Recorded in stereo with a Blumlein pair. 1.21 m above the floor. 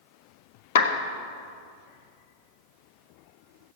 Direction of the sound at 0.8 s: 60° left.